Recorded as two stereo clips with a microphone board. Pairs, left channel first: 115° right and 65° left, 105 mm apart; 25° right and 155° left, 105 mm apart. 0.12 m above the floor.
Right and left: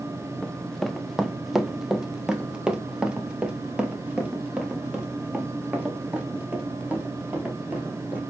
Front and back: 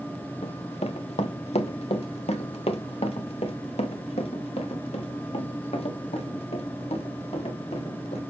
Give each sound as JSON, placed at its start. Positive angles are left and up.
{"t": 0.4, "sound": "running footsteps", "azimuth_deg": -30, "distance_m": 0.9}